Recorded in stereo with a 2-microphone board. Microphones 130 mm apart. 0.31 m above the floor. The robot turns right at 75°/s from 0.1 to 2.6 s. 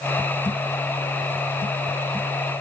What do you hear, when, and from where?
Only background noise.